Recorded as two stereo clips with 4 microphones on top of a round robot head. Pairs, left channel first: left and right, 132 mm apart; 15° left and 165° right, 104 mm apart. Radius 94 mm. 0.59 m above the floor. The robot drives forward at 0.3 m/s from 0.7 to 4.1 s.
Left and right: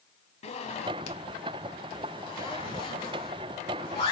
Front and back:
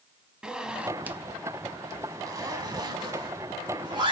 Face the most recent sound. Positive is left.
turn(degrees=155)